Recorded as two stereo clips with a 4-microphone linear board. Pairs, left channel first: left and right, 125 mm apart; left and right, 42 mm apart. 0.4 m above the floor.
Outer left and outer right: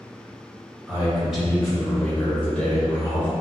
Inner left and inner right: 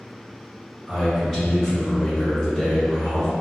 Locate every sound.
0.9 s a man speaking: 5° right (ahead or behind), 1.6 m; by 3.3 s 20° left (ahead or behind), 0.9 m